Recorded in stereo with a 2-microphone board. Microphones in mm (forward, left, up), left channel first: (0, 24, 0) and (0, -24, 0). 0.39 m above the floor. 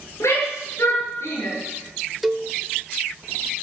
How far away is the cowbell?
About 1.1 m.